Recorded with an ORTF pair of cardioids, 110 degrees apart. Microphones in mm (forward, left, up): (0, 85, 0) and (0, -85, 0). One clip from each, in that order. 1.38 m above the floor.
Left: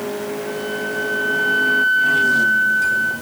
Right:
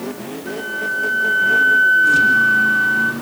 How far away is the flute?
About 5 m.